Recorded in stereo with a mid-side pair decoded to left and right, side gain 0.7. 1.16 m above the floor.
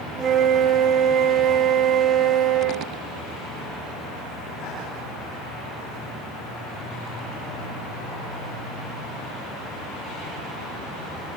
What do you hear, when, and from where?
0.1 s a flute: 30° right, 3 m